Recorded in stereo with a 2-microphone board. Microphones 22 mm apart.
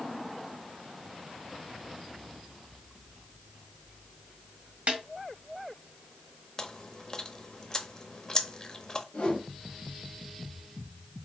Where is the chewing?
30° left (ahead or behind), 0.6 m.